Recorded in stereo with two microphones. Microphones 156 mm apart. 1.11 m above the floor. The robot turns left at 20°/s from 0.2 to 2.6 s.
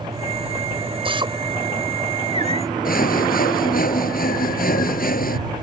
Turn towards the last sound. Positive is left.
turn(degrees=65)  # may be behind; listen again after turning